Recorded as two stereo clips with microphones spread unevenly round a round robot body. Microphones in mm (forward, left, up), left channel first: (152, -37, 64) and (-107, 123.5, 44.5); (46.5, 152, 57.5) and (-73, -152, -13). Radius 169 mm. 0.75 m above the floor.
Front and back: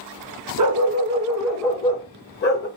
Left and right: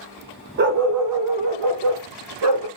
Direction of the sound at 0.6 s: 175° right.